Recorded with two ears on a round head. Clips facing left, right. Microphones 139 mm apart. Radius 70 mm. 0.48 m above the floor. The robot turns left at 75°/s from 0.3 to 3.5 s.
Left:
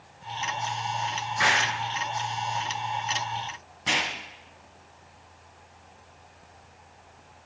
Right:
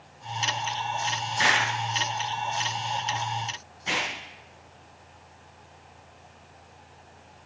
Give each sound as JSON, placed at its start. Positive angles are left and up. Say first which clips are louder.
{"t": 1.4, "sound": "an explosion", "louder": "even", "side_deg": -35, "distance_m": 3.5}